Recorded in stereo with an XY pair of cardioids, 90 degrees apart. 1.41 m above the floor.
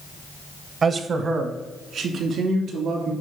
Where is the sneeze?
I don't hear a sneeze.